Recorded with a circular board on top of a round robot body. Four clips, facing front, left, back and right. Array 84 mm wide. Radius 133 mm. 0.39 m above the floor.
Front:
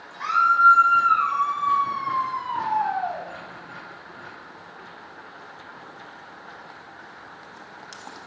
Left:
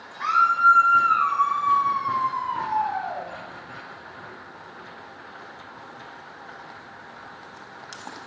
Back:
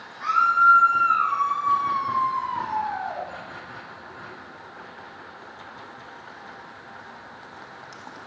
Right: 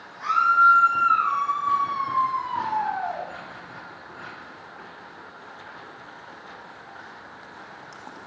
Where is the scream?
35° left, 2.5 m; by 3.3 s 20° right, 2.0 m.